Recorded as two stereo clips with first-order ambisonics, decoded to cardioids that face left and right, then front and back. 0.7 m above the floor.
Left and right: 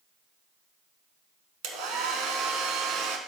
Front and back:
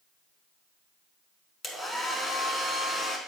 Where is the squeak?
No squeak in this recording.